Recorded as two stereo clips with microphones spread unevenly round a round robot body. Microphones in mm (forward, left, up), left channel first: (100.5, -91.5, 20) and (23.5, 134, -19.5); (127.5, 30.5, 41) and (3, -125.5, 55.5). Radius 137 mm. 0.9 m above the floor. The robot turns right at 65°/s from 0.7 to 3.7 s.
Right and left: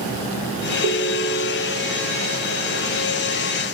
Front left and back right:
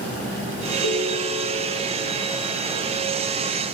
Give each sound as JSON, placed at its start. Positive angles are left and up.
{"t": 0.8, "sound": "a ringtone", "azimuth_deg": 65, "distance_m": 1.6}